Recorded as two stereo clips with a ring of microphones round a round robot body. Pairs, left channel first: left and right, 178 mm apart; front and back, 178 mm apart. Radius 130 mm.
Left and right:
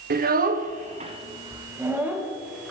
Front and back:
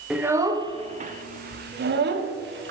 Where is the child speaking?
95° right, 0.9 m; by 2.7 s straight behind, 1.4 m.